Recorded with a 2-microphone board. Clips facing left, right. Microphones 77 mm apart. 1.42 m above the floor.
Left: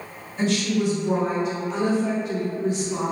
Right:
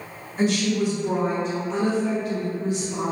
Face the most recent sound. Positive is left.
turn(degrees=65)  # may be behind; listen again after turning